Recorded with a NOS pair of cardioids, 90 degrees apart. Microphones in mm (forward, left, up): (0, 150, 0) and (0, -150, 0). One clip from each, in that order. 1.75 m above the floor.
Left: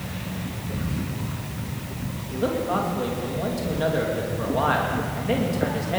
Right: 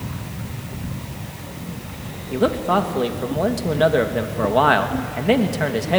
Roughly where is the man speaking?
Ahead right.